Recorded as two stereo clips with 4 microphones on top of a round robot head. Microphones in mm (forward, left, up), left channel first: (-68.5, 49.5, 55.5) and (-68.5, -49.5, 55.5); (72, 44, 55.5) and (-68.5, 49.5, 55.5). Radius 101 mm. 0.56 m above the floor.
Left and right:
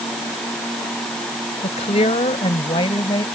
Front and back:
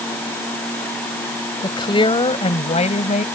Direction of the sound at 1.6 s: 55° left.